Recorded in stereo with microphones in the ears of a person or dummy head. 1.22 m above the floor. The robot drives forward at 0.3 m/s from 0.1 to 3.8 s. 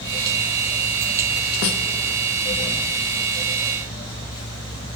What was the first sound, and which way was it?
A snare drum, 65° left (ahead or behind).